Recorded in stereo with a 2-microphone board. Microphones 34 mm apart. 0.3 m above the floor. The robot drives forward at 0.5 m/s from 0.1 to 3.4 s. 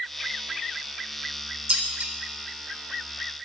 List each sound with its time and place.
1.7 s dishes clattering: 30° right (ahead or behind), 1.2 m; by 2.1 s 35° right (ahead or behind), 1.1 m